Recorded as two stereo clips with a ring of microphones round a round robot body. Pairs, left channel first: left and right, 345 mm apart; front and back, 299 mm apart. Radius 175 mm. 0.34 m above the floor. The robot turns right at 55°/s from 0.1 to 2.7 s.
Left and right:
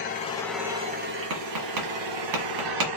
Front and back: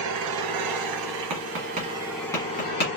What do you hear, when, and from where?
0.0 s an engine running: 155° left, 1.2 m; by 3.0 s 60° right, 1.2 m
1.3 s tapping: 140° right, 1.6 m; by 2.9 s 60° right, 1.6 m